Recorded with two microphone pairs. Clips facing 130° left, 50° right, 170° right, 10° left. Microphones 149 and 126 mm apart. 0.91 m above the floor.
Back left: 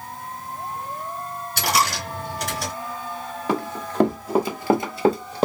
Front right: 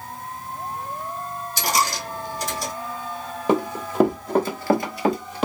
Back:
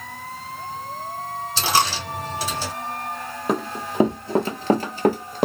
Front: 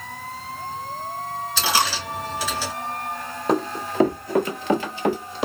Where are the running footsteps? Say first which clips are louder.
Front right 4 dB, front 3 dB; 85° right, 0.9 m; by 5.5 s 170° left, 1.4 m.